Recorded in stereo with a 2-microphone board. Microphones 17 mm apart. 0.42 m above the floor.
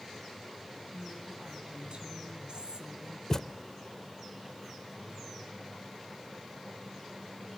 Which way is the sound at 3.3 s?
25° left (ahead or behind).